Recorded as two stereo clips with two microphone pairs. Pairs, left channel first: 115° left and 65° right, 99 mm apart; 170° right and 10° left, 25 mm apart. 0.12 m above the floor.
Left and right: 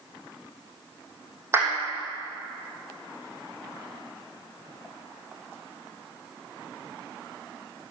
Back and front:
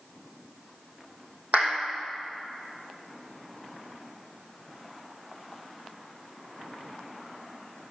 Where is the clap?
Straight ahead, 3.5 m.